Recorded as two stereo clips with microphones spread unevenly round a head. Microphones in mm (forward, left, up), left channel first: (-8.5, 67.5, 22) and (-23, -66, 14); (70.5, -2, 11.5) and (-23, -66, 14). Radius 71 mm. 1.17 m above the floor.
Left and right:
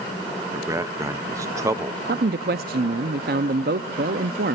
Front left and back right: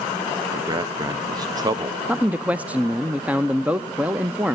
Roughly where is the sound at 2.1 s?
Ahead right.